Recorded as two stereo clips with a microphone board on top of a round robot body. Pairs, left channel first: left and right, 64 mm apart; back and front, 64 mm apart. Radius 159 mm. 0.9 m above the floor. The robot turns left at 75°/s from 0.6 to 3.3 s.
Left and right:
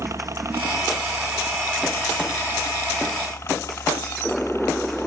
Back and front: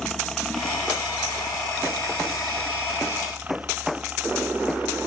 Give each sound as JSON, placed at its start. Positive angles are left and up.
{"t": 0.0, "sound": "a helicopter", "azimuth_deg": -95}